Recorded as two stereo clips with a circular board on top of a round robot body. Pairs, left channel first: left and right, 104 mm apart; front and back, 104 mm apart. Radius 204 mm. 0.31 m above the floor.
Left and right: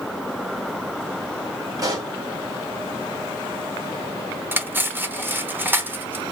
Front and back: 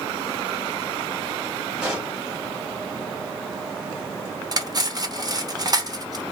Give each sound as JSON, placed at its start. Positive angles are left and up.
{"t": 1.8, "sound": "a pop", "azimuth_deg": -105, "distance_m": 1.7}
{"t": 4.5, "sound": "cutlery clinking", "azimuth_deg": -150, "distance_m": 0.9}